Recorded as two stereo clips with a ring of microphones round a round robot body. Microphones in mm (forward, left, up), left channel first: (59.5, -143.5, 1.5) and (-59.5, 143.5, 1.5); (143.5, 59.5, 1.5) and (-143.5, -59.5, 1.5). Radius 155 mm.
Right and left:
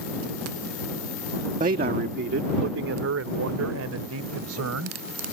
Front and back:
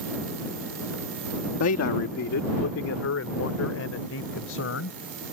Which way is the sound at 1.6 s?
50° left.